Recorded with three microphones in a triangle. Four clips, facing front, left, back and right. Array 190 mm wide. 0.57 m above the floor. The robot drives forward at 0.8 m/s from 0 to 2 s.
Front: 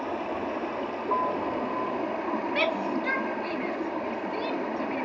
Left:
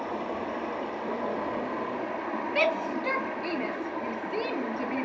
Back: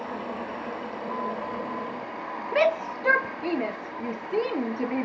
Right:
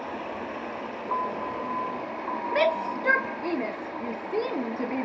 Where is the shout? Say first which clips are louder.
Right 3 dB, back 8 dB; 155° right, 0.8 m.